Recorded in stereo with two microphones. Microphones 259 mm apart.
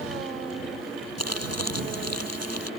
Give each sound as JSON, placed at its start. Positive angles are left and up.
{"t": 1.2, "sound": "crumpling", "side_deg": -75}